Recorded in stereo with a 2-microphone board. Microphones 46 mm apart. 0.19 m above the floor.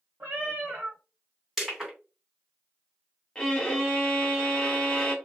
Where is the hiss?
No hiss in this recording.